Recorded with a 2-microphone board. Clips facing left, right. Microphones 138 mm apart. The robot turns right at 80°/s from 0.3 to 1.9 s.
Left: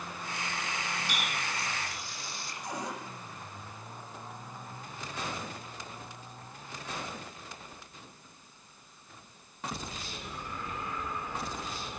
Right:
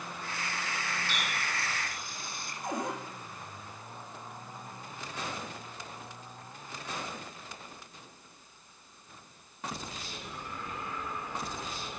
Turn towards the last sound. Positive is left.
turn(degrees=-55)  # may be behind; listen again after turning